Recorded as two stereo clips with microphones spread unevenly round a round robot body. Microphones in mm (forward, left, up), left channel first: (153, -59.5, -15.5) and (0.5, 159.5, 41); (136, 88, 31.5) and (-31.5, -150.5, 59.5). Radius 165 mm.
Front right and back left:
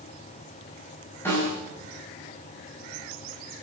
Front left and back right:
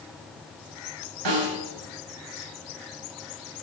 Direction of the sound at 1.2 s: 140° right.